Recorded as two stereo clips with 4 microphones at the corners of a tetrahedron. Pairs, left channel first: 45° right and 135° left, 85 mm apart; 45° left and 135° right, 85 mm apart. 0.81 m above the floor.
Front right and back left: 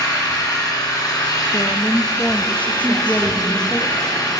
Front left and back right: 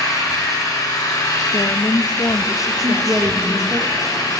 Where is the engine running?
5° right, 3.5 m.